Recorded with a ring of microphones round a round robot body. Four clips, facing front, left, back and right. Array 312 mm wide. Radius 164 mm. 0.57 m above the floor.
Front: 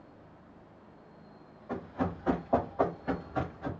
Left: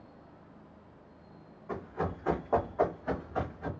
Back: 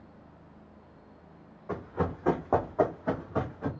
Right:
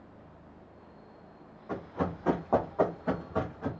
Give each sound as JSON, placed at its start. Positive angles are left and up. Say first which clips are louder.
{"t": 1.7, "sound": "running footsteps", "louder": "right 2 dB, back 2 dB", "azimuth_deg": -175, "distance_m": 2.5}